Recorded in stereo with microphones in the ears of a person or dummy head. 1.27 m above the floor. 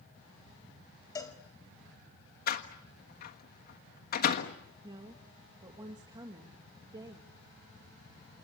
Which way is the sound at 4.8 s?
25° right (ahead or behind).